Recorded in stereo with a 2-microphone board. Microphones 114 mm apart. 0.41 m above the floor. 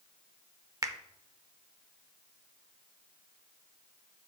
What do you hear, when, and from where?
0.8 s a finger snap: 30° right (ahead or behind), 0.6 m